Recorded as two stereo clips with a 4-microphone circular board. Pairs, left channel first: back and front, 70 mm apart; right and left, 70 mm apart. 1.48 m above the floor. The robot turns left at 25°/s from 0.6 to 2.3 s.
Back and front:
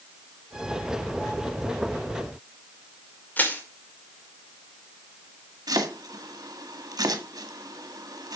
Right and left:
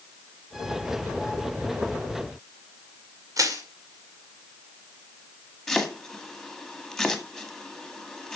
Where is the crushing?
115° left, 2.5 m.